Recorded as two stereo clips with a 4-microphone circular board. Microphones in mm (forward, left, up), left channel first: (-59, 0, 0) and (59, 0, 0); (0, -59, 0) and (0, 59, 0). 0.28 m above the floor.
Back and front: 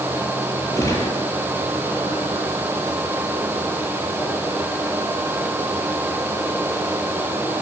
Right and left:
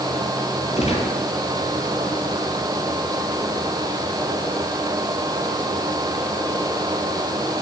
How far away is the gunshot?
About 8.5 m.